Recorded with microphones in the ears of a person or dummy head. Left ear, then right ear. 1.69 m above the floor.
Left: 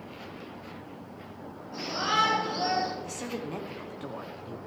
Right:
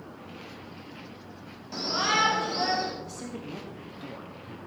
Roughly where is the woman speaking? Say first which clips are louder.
Left 4 dB; left.